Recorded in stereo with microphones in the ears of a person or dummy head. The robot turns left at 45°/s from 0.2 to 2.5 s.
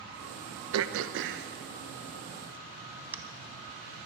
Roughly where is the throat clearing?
Right.